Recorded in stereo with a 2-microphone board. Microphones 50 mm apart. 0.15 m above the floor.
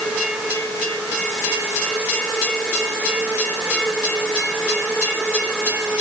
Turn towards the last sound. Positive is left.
No sound to turn to.